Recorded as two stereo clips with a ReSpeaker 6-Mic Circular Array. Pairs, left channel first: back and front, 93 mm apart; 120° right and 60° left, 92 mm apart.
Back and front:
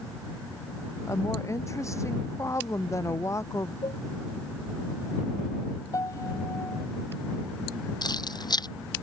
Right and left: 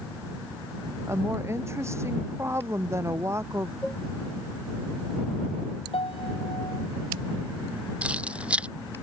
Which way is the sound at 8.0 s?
140° left.